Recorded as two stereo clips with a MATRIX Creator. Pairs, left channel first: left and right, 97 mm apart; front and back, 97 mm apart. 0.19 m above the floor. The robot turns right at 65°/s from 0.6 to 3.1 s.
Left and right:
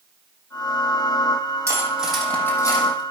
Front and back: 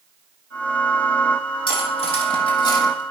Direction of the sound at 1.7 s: 30° right.